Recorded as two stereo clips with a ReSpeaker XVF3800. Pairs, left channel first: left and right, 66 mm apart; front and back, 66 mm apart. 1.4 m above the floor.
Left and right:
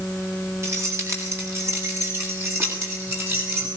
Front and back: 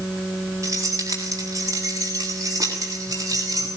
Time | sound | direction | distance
0.6 | keys jangling | 140° right | 8 m